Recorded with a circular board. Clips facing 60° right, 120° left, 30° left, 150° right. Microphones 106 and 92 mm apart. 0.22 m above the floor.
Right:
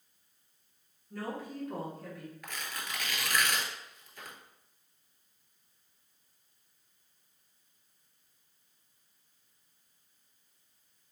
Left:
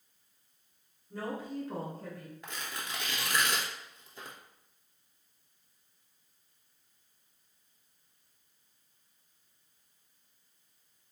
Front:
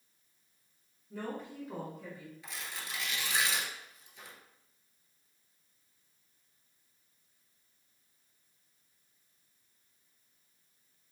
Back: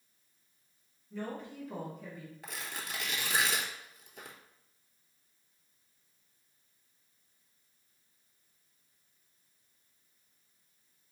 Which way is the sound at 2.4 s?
Straight behind.